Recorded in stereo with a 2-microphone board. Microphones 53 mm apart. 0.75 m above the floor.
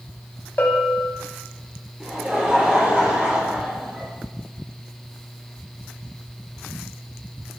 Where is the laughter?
30° right (ahead or behind), 2.5 m.